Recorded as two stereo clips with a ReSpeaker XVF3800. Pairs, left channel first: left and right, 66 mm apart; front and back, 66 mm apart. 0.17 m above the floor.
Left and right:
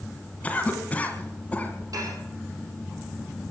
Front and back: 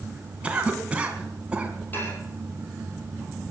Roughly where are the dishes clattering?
Ahead right.